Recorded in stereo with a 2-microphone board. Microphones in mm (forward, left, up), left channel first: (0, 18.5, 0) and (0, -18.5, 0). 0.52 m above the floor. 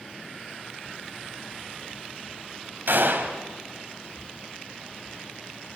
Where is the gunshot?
65° right (ahead or behind), 2.5 m.